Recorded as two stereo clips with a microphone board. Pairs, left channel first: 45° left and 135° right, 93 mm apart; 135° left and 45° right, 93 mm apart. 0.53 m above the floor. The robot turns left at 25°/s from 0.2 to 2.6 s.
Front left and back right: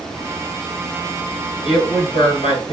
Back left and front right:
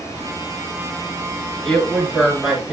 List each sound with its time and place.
1.6 s a woman speaking: 60° left, 7 m; by 2.7 s 35° left, 7 m